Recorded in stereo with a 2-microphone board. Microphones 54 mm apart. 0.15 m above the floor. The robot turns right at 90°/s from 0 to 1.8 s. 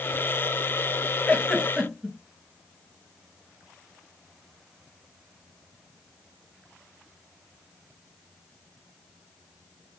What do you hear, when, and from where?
1.3 s a giggle: 30° left (ahead or behind), 2 m; by 2.2 s 10° right (ahead or behind), 2 m